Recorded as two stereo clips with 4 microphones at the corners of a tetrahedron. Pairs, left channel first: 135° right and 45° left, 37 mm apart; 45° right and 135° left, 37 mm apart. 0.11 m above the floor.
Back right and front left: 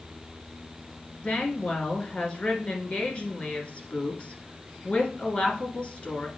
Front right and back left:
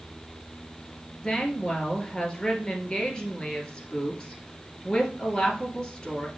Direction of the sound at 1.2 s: 100° right.